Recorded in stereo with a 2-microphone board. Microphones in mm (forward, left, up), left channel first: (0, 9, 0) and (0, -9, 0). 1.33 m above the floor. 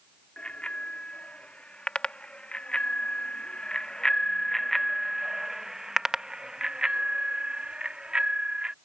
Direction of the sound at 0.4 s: 75° left (ahead or behind).